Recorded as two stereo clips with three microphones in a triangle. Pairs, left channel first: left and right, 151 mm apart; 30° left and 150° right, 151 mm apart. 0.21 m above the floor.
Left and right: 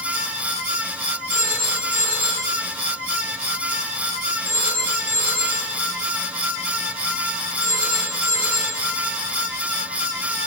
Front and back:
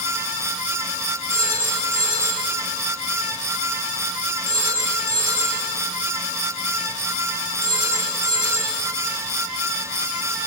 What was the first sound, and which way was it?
A phone ringing, 70° left.